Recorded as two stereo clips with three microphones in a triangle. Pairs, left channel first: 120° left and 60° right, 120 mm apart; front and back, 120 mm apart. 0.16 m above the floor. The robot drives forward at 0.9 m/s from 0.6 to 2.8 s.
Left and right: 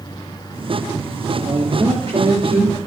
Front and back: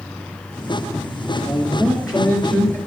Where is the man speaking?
80° right, 2 m; by 2.8 s 115° right, 2.5 m.